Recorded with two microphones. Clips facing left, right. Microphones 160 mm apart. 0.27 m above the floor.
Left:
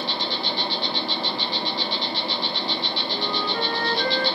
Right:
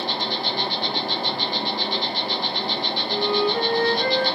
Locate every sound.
0.0 s an insect: 45° right (ahead or behind), 1.0 m
3.1 s a flute: 20° right (ahead or behind), 2.5 m